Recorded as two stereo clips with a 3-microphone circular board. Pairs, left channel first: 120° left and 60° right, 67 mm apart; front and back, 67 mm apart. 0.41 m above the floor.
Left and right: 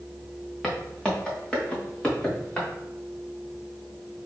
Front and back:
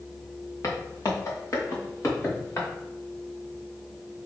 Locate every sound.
0.6 s footsteps: 40° left, 1.6 m; by 2.7 s 50° left, 3 m